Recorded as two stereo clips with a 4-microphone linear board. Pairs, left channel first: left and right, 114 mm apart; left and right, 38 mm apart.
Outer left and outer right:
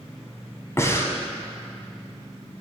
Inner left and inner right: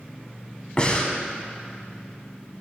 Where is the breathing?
25° left (ahead or behind), 1.0 m.